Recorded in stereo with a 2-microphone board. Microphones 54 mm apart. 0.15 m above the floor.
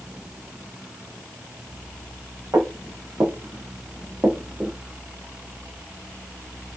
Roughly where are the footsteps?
Right.